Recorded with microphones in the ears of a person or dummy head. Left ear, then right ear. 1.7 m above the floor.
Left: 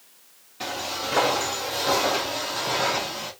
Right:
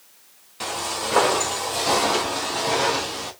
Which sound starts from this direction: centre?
Footsteps, at 0.6 s.